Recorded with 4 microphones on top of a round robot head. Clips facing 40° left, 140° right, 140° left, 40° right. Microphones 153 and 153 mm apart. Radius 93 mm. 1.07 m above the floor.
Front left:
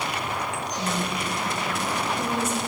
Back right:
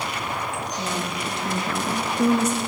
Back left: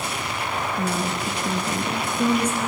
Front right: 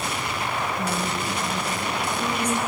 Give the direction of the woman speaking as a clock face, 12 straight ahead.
7 o'clock.